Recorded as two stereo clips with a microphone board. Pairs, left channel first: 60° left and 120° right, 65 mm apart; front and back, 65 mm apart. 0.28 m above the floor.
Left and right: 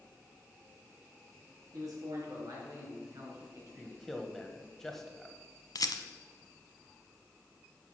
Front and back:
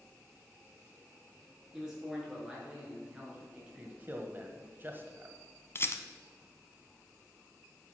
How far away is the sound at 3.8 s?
About 1.4 m.